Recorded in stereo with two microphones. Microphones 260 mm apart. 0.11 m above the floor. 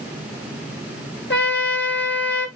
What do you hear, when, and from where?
1.3 s a trumpet: 50° left (ahead or behind), 1.0 m